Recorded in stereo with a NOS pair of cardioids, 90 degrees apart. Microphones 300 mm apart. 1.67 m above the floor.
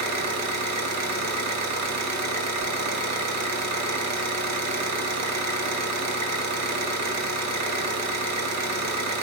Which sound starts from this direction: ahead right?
An engine running, at 0.0 s.